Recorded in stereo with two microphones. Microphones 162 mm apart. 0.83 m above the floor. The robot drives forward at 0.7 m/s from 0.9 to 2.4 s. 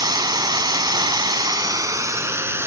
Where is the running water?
25° right (ahead or behind), 0.7 m; by 2.7 s 15° right (ahead or behind), 1.1 m.